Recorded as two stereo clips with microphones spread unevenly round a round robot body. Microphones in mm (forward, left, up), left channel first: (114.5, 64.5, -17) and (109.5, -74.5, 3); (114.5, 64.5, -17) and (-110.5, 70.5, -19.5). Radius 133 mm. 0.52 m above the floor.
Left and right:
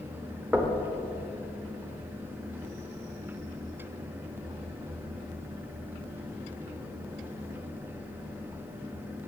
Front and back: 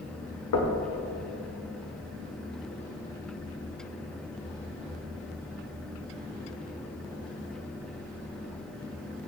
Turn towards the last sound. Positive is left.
turn(degrees=-10)